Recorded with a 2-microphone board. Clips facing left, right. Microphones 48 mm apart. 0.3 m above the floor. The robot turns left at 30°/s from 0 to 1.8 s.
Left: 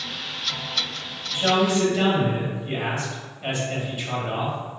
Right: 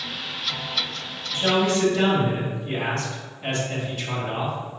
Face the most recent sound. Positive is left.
turn(degrees=10)  # may be behind; listen again after turning